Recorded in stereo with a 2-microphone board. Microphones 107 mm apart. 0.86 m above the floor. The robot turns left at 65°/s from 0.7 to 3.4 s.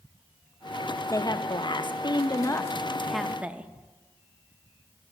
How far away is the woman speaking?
About 0.6 m.